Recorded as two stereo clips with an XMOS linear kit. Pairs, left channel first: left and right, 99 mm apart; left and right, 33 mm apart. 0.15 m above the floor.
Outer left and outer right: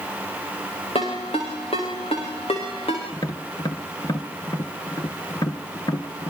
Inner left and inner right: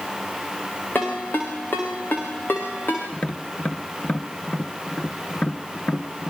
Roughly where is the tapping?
Left.